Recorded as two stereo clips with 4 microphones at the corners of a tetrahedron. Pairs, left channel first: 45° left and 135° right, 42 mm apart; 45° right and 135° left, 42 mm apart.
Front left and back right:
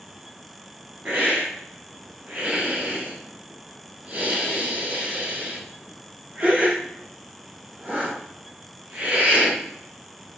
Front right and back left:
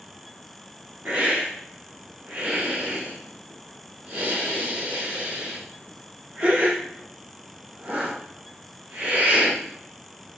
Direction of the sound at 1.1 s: 170° left.